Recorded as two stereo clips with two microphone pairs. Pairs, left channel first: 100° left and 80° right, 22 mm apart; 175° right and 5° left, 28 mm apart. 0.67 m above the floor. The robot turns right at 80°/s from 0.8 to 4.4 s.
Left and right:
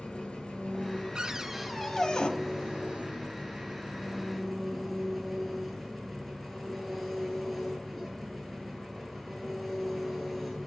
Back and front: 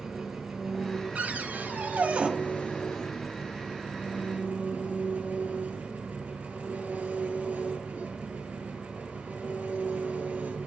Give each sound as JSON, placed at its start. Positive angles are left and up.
{"t": 0.0, "sound": "an engine running", "azimuth_deg": 85, "distance_m": 7.0}
{"t": 1.1, "sound": "a cupboard door", "azimuth_deg": -35, "distance_m": 1.5}